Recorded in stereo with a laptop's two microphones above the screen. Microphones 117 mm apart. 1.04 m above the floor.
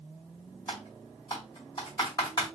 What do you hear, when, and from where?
0.7 s typing on a keyboard: 35° left (ahead or behind), 1.9 m